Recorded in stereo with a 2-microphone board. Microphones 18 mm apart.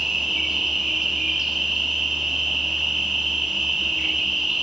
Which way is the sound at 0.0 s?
45° right (ahead or behind).